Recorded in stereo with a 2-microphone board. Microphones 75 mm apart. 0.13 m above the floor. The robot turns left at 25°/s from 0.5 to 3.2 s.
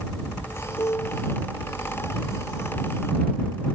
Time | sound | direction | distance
0.8 | a piano | 55° left (ahead or behind) | ?